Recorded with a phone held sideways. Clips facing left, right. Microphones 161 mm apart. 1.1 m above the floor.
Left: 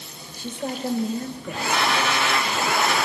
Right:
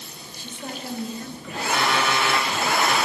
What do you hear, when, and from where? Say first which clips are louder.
0.4 s a woman speaking: left 7 dB; 40° left (ahead or behind), 1.9 m
1.7 s an alarm clock: right 1 dB; 45° right (ahead or behind), 9 m